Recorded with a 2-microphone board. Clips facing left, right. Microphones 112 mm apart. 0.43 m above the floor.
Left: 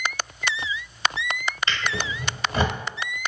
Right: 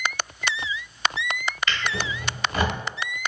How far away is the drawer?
About 1.0 m.